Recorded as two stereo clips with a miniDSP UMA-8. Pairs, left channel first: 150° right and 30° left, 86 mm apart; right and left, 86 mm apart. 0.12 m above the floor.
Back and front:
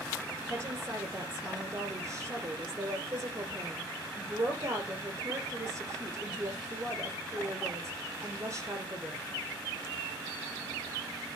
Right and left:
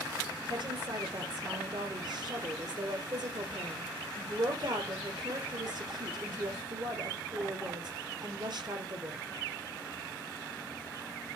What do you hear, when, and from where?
0.5 s a woman speaking: 75° left, 2.5 m